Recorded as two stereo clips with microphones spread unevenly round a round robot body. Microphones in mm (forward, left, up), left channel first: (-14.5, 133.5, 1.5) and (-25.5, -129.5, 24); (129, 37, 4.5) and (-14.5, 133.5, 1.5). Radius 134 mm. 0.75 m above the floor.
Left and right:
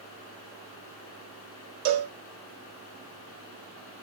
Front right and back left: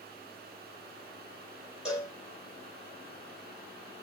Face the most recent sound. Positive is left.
turn(degrees=-125)